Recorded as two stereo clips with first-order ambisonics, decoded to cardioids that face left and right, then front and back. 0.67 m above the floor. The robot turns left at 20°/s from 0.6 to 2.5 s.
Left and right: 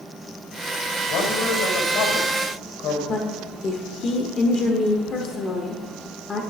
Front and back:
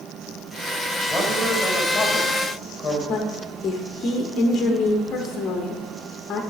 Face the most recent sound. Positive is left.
turn(degrees=45)